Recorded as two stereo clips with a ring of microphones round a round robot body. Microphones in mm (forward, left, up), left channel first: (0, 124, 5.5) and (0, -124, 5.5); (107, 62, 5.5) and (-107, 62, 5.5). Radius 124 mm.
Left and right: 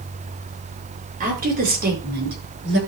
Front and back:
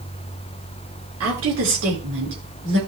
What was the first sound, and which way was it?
A woman speaking, 145° right.